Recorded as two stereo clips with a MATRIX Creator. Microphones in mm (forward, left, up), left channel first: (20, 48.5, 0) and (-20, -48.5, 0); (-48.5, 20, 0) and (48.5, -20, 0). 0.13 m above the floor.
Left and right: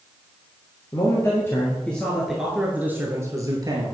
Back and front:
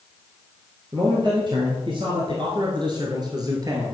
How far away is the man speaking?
About 3 m.